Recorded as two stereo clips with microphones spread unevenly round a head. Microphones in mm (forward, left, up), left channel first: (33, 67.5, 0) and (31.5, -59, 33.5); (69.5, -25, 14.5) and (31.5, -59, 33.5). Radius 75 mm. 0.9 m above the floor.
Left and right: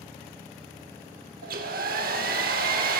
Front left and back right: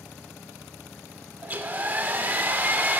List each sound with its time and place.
1.4 s a hair dryer: 80° right, 2.5 m